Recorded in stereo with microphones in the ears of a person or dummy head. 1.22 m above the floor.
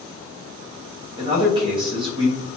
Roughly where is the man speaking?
Right.